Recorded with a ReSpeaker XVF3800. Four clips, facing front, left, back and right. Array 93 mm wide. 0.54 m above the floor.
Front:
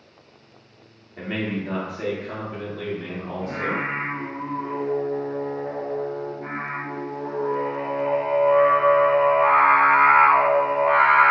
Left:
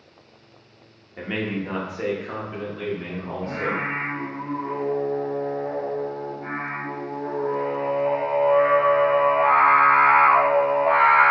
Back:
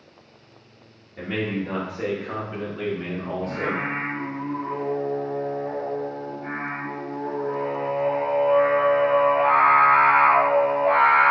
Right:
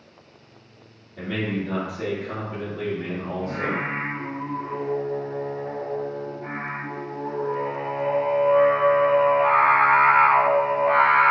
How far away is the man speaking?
About 1.2 m.